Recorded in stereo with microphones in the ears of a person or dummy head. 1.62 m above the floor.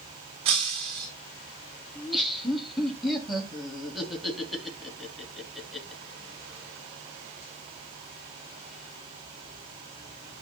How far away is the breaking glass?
About 2.5 m.